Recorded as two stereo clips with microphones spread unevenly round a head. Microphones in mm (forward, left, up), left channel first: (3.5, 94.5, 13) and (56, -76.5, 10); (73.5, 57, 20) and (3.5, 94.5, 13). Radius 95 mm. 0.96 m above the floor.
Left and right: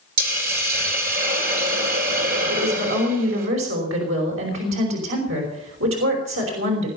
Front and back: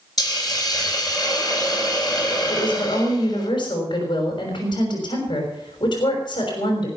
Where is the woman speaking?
90° right, 5.5 m.